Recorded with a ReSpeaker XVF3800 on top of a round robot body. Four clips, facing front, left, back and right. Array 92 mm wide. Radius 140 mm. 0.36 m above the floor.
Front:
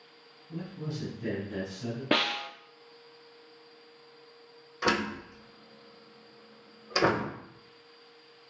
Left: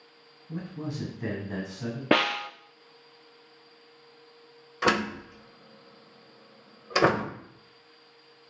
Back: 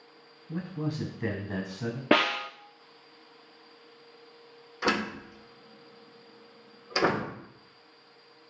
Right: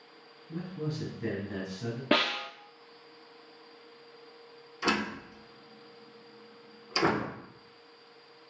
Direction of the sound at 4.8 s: 90° left.